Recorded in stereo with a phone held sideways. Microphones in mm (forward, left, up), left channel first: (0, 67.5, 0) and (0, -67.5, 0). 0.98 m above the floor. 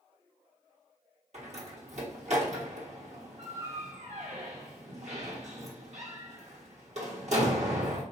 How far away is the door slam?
About 1.2 m.